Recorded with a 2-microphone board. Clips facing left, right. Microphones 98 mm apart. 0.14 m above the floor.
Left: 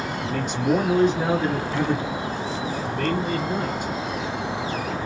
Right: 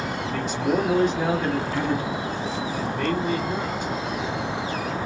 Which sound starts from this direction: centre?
A man speaking, at 0.2 s.